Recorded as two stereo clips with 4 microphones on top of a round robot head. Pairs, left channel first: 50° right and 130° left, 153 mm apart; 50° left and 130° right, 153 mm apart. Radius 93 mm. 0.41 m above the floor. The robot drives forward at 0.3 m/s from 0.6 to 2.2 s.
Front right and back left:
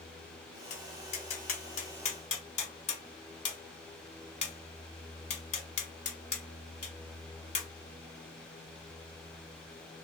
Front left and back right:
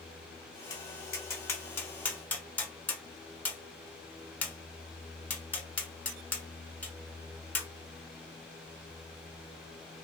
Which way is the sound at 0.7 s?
15° right.